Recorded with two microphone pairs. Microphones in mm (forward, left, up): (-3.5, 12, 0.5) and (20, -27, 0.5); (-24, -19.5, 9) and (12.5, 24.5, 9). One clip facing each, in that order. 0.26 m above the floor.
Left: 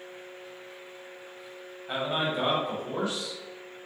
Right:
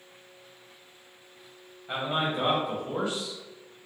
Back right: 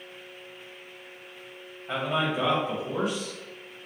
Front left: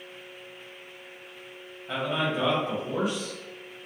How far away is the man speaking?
About 1.3 m.